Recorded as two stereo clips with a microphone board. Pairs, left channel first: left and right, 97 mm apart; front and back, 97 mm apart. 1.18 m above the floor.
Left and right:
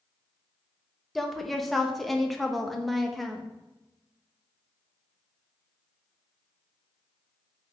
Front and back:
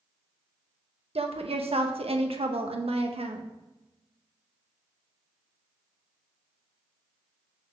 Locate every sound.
1.1 s a woman speaking: straight behind, 1.0 m